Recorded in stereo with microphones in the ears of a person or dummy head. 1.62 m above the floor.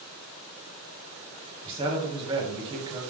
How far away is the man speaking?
About 1.2 m.